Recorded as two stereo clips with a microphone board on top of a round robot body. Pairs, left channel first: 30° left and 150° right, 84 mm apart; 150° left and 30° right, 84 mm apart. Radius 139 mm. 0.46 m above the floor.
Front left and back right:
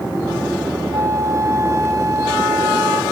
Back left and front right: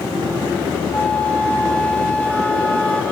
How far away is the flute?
About 1.4 m.